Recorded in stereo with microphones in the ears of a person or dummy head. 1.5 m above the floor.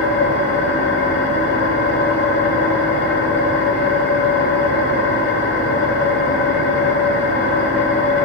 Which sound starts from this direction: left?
An engine running, at 0.0 s.